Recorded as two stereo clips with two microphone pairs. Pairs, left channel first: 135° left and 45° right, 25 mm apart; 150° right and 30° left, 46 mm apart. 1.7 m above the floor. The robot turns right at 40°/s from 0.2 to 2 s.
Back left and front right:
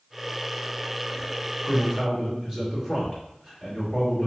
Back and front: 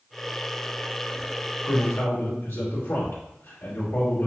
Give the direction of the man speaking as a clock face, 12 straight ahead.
4 o'clock.